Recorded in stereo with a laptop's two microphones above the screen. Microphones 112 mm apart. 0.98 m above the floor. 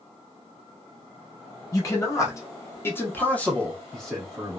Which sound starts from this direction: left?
A man speaking, at 1.7 s.